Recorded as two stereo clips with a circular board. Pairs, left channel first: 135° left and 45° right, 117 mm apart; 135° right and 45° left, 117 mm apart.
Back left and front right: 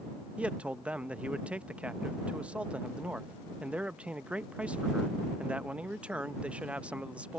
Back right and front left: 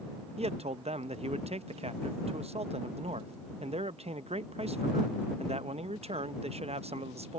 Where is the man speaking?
35° left.